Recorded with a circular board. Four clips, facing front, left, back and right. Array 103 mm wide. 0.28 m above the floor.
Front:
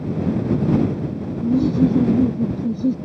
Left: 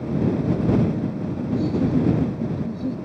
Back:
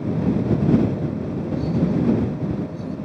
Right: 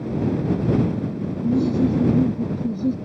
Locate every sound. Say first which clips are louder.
1.4 s laughter: right 4 dB, front 7 dB; 30° right; by 3.0 s 25° right